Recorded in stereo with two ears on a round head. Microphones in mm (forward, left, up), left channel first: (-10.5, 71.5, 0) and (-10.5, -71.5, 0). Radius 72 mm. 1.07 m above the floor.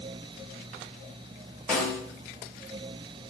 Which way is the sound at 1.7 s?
10° left (ahead or behind).